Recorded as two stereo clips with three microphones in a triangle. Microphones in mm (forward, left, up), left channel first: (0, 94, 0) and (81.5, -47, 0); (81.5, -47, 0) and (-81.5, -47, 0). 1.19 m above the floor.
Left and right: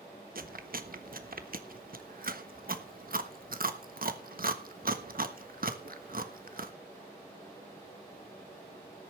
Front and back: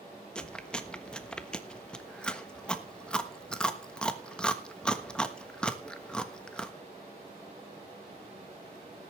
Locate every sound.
0.3 s chewing: 85° right, 1.3 m